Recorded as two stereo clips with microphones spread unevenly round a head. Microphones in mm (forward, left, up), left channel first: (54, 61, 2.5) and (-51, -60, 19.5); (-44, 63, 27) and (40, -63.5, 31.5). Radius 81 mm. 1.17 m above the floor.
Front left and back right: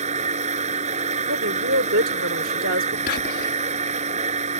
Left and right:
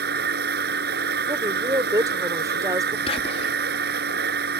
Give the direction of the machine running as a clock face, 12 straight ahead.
3 o'clock.